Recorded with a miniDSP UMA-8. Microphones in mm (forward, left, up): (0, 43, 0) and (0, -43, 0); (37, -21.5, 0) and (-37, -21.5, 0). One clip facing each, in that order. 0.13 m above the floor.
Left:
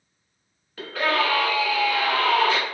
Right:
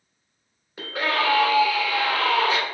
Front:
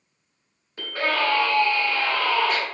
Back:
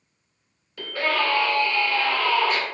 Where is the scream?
35° right, 1.7 m.